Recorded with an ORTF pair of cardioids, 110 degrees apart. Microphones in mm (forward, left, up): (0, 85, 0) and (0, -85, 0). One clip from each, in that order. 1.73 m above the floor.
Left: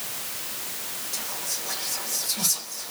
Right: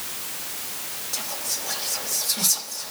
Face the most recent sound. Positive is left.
turn(degrees=-10)